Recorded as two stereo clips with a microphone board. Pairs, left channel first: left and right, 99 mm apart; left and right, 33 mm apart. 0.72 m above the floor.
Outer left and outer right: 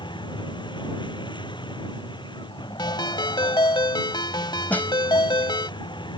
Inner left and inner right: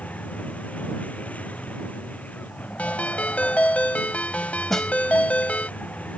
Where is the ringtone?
50° left (ahead or behind).